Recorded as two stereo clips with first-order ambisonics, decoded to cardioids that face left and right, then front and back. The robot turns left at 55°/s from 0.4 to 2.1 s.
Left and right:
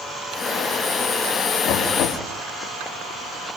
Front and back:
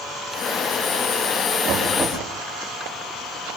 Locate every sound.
1.6 s knocking: 125° left, 3.5 m; by 2.2 s 100° left, 3.5 m